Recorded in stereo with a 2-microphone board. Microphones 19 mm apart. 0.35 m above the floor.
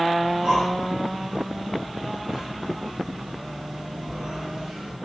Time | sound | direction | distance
0.2 | breathing | 45° right (ahead or behind) | 4.5 m